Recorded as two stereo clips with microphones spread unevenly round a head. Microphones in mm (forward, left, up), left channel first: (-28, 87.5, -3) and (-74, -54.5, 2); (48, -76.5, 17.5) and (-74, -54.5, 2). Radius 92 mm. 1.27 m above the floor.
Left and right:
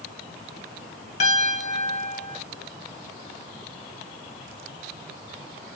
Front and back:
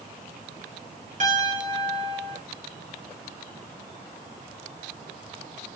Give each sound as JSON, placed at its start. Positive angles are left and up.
{"t": 1.2, "sound": "a piano", "azimuth_deg": 115, "distance_m": 1.7}